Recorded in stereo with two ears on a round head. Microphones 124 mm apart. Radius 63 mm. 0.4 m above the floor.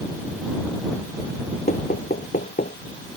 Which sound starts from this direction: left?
Knocking, at 1.7 s.